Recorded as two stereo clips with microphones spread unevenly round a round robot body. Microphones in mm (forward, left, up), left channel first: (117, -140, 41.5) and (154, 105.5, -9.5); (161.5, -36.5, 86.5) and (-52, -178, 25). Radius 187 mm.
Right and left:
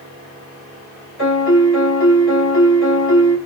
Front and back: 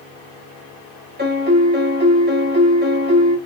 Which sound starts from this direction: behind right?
A piano, at 1.2 s.